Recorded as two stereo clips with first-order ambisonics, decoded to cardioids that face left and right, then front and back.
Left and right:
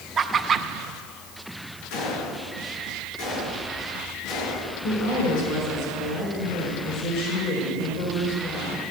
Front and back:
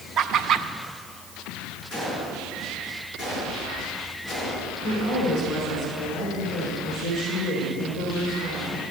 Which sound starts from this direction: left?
A gunshot, at 1.9 s.